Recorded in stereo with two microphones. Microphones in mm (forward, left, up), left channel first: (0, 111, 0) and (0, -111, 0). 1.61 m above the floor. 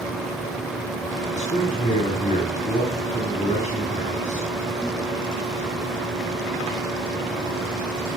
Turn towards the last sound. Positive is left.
turn(degrees=30)  # may be behind; listen again after turning